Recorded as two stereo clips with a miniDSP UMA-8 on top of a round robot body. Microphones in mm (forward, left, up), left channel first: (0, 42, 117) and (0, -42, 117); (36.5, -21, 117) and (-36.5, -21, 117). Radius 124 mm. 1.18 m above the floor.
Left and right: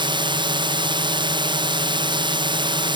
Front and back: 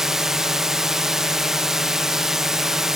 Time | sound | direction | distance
0.0 | a drone | 95° right | ?